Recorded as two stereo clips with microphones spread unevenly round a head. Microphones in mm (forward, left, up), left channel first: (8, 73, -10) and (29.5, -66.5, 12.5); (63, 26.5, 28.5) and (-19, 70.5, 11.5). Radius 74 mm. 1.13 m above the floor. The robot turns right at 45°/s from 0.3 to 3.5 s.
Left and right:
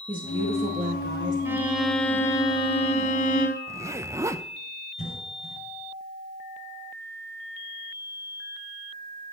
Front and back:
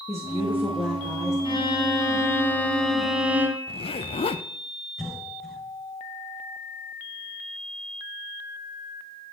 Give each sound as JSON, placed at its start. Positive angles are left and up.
{"t": 0.1, "sound": "a woman speaking", "azimuth_deg": -145, "distance_m": 1.9}
{"t": 1.4, "sound": "a violin", "azimuth_deg": -10, "distance_m": 2.5}
{"t": 3.7, "sound": "a zipper", "azimuth_deg": -10, "distance_m": 0.7}
{"t": 5.0, "sound": "a cough", "azimuth_deg": 55, "distance_m": 5.0}